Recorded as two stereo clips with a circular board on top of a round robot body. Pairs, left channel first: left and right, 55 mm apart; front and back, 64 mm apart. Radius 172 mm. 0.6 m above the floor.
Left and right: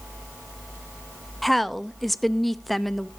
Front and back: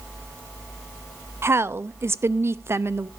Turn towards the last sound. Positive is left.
turn(degrees=180)